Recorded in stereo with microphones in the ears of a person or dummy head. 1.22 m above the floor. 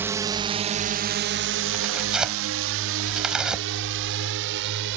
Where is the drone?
10° right (ahead or behind); by 5.0 s 60° right (ahead or behind).